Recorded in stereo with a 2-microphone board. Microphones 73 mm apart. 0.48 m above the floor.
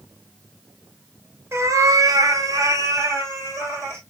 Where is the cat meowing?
35° right (ahead or behind), 0.6 m.